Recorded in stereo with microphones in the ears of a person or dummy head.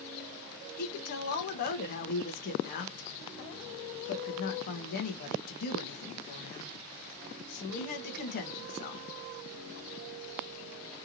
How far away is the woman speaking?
About 1.2 m.